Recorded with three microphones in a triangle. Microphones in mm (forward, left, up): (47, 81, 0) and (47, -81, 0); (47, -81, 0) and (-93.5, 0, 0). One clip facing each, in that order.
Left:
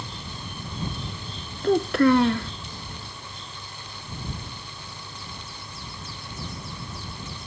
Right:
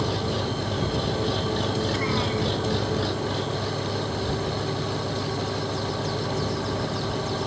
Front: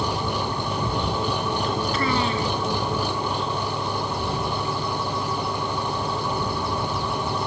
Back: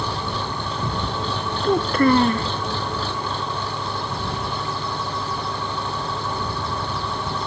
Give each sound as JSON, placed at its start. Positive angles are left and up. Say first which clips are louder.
{"t": 0.0, "sound": "an engine running", "louder": "right 13 dB, front 2 dB", "azimuth_deg": -110}
{"t": 1.6, "sound": "a child speaking", "louder": "left 7 dB, back 12 dB", "azimuth_deg": 115}